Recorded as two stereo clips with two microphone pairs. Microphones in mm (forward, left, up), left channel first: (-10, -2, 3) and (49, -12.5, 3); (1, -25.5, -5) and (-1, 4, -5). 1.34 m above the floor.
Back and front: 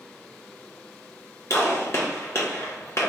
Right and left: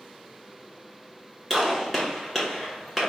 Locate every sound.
1.5 s a gunshot: straight behind, 1.3 m